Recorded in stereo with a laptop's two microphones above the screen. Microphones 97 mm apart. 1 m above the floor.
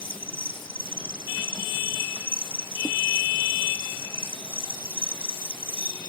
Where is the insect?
60° left (ahead or behind).